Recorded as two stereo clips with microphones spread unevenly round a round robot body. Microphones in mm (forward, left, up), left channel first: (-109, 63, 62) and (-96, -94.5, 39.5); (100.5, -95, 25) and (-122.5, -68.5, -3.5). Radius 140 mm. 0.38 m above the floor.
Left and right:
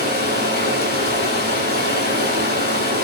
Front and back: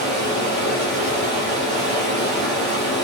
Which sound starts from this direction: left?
Running water, at 0.0 s.